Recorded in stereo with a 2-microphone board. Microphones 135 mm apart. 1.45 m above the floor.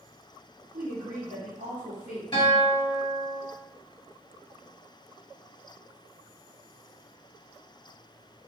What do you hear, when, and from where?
0.7 s a woman speaking: 65° right (ahead or behind), 1.0 m
2.3 s a guitar: 40° left (ahead or behind), 1.3 m